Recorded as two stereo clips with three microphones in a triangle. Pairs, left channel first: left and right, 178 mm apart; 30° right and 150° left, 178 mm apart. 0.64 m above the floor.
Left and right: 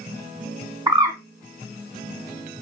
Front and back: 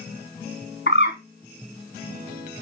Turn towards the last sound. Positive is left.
turn(degrees=-20)